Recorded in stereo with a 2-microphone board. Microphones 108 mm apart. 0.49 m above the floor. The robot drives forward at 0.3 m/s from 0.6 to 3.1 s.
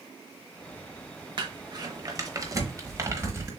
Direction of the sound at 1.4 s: 50° right (ahead or behind).